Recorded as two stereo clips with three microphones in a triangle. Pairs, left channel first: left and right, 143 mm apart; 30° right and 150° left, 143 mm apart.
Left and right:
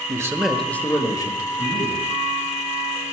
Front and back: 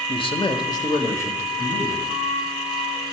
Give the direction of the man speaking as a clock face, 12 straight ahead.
1 o'clock.